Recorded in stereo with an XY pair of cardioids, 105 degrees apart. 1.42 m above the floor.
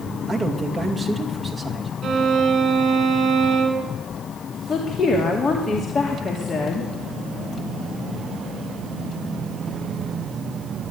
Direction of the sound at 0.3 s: 20° right.